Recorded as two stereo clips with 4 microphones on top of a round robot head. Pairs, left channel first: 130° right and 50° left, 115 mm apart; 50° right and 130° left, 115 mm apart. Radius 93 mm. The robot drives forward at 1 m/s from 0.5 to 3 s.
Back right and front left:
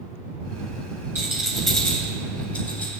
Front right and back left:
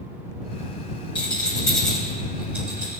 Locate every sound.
1.1 s a rattle: 15° right, 1.4 m; by 3.0 s 170° right, 1.7 m